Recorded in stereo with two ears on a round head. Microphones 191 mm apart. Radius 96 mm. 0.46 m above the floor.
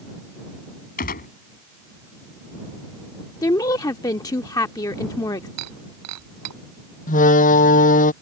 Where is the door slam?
35° left (ahead or behind).